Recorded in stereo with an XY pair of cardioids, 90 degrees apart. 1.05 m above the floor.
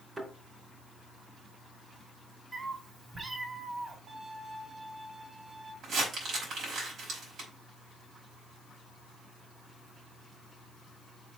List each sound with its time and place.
0.2 s a thud: 30° right, 3 m
2.5 s a cat meowing: 35° right, 3 m
4.1 s a violin: 65° right, 2.5 m
5.8 s crumpling: 70° right, 5 m